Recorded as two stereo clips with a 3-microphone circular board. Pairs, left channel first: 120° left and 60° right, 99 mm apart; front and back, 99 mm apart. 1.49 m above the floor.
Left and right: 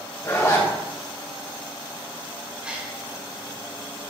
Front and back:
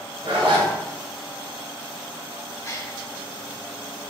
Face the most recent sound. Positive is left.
turn(degrees=10)